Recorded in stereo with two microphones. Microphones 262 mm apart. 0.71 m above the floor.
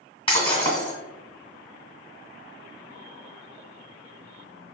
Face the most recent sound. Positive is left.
turn(degrees=20)  # may be behind; listen again after turning